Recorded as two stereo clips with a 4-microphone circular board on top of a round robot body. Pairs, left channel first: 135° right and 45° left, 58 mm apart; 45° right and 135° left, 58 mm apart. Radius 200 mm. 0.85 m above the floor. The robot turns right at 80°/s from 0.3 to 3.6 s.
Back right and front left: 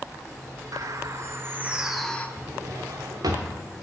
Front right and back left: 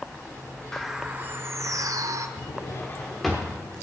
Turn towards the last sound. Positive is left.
turn(degrees=70)